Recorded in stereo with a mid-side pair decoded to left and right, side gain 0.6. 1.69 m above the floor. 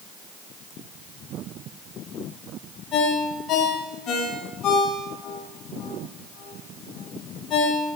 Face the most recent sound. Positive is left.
turn(degrees=50)